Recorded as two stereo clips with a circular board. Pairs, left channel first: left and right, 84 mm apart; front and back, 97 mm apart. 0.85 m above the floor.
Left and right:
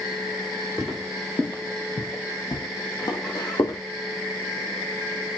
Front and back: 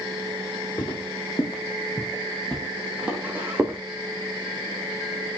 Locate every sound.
0.8 s footsteps: 5° left, 1.6 m; by 3.8 s 120° left, 1.8 m